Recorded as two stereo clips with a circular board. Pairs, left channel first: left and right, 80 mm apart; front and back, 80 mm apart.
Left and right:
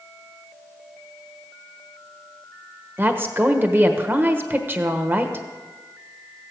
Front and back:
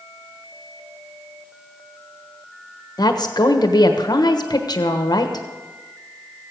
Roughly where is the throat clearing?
No throat clearing in this recording.